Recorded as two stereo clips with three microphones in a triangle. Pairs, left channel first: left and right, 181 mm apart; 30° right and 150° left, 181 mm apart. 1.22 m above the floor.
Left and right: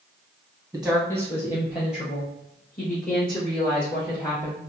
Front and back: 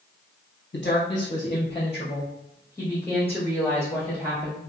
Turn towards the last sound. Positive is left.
turn(degrees=55)